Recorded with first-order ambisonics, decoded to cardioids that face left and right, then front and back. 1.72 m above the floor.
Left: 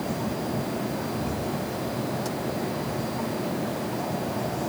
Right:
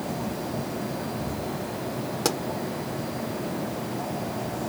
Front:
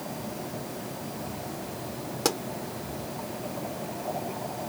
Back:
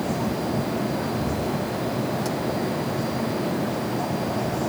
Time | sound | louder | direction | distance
2.2 | a pop | right 5 dB, even | 50° right | ?